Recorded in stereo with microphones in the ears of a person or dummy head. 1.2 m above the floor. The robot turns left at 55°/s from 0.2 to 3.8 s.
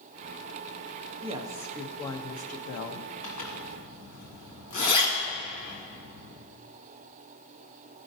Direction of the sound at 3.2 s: 35° left (ahead or behind).